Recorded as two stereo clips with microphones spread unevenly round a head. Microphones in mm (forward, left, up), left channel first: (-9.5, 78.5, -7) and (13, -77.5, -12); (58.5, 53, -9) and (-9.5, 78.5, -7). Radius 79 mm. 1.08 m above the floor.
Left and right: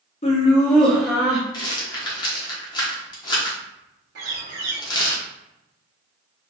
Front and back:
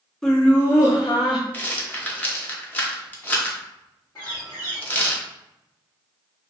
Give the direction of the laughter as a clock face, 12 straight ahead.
10 o'clock.